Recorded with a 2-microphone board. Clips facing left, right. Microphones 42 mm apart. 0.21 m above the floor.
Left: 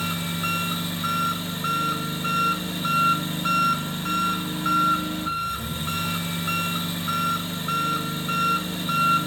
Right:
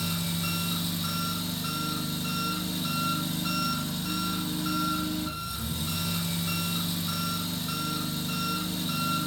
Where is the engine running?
45° left (ahead or behind), 1.8 m.